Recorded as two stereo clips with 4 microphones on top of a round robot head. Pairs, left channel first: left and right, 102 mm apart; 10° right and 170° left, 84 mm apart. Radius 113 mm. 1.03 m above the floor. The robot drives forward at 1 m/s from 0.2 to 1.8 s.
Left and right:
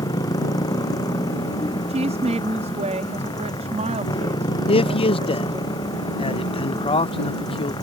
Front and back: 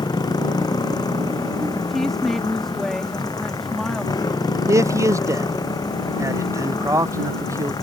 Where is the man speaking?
120° left.